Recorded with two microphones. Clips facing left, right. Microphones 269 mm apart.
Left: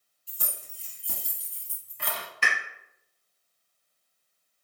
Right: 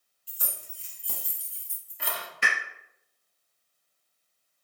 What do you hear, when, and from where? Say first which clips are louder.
0.3 s keys jangling: left 1 dB; 50° left (ahead or behind), 1.2 m; by 2.3 s 15° right (ahead or behind), 0.8 m
2.4 s a pop: even; 15° right (ahead or behind), 1.2 m